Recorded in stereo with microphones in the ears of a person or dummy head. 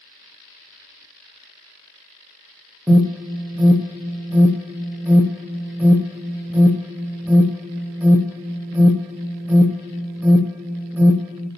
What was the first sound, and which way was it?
An alarm, 15° right (ahead or behind).